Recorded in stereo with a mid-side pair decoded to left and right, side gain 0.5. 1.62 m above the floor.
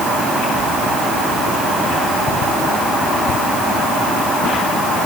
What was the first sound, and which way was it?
Only background noise.